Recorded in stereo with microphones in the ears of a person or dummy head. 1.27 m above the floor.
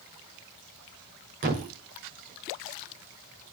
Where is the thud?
45° right (ahead or behind), 1.8 m.